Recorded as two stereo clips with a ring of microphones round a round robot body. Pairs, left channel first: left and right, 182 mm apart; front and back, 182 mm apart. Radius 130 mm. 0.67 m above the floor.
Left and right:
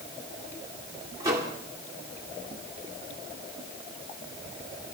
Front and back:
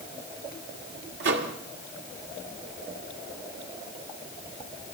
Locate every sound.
1.2 s a microwave: 165° right, 1.6 m